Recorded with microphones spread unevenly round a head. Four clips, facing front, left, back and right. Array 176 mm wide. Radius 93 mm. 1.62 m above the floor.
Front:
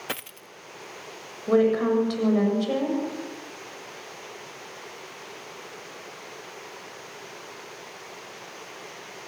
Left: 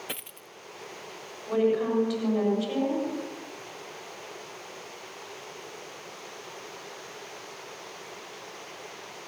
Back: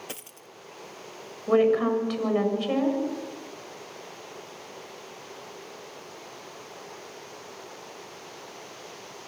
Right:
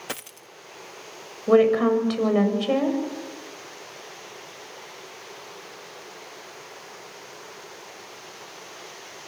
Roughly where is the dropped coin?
Ahead right.